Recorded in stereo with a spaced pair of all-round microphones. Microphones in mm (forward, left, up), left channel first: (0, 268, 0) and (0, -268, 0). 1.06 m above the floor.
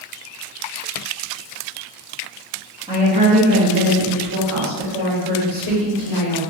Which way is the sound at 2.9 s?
10° right (ahead or behind).